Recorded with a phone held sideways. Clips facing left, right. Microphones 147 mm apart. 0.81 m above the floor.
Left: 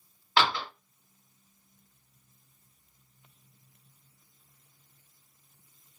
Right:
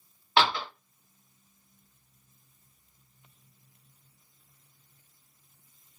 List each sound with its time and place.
0.4 s a door slam: 20° right (ahead or behind), 1.4 m